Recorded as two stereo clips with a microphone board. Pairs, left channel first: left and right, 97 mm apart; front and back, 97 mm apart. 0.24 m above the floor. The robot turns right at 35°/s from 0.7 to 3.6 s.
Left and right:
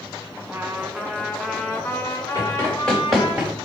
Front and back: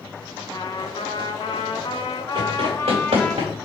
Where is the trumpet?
15° right, 0.6 m; by 3.4 s 80° left, 0.6 m.